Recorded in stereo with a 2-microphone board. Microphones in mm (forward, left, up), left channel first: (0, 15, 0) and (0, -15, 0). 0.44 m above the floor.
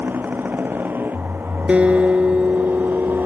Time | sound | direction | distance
0.0 | a motorcycle | 90° right | ?
1.7 | a guitar | 40° right (ahead or behind) | ?